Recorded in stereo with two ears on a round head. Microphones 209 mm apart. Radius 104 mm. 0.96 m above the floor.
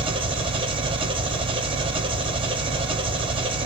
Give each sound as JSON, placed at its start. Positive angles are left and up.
{"t": 0.0, "sound": "an engine running", "side_deg": -25, "distance_m": 0.8}